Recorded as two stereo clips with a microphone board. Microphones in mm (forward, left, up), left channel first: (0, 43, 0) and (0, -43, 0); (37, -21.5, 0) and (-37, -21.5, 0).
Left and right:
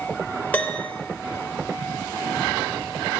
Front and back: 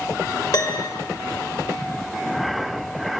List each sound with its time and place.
0.5 s a piano: 20° left, 0.8 m